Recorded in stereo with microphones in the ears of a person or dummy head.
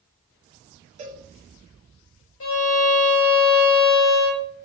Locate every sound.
1.0 s a cowbell: 35° right (ahead or behind), 0.8 m
2.4 s a violin: 75° left (ahead or behind), 1.8 m